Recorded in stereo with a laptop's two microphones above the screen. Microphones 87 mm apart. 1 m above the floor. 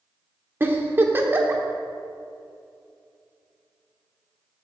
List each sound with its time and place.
0.6 s a giggle: 25° right (ahead or behind), 1.2 m